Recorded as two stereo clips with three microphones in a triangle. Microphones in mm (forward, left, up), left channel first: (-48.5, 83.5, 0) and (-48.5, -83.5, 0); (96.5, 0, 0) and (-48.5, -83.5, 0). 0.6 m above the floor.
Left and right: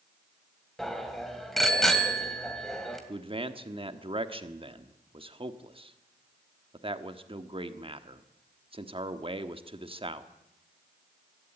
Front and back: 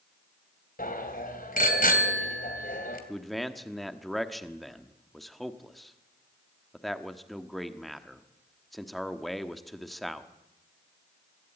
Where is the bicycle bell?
Straight ahead, 2.5 m.